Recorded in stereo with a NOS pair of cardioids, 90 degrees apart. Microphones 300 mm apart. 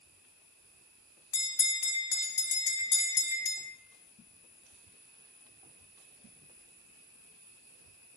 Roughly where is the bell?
Ahead left.